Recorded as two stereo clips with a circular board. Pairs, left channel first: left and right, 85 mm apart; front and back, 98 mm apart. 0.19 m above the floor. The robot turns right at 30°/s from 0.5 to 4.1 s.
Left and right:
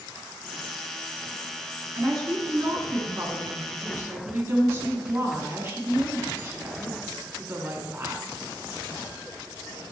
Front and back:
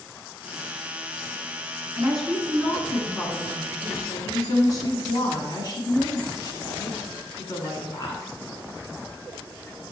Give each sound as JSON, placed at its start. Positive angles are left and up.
{"t": 1.9, "sound": "a woman speaking", "azimuth_deg": -100, "distance_m": 1.8}